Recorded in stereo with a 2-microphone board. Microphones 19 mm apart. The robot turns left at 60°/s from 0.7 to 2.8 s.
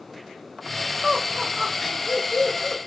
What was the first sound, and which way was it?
Laughter, 45° right (ahead or behind).